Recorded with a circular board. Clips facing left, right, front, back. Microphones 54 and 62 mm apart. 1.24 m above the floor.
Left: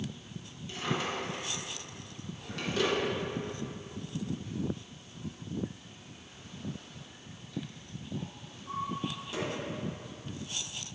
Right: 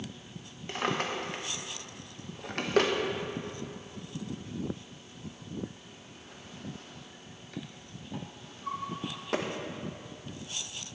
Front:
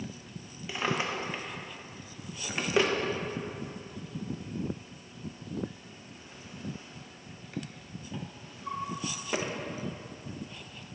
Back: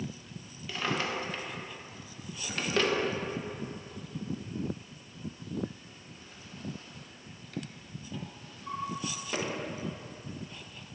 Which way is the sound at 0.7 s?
75° right.